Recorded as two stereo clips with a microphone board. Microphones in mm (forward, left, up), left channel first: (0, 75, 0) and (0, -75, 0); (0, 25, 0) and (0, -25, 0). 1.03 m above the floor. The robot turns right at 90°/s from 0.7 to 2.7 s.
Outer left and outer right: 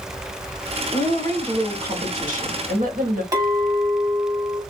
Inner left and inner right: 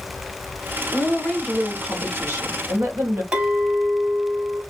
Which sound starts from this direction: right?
A clink, at 3.3 s.